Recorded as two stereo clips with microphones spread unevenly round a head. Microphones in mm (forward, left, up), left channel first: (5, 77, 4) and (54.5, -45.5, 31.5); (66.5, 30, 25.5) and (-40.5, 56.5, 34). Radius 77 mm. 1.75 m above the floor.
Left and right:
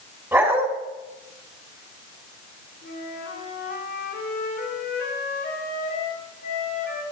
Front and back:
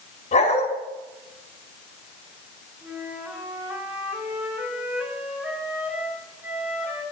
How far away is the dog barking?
About 3.5 m.